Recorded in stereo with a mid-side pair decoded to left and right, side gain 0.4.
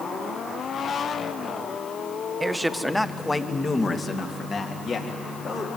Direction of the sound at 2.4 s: 25° right.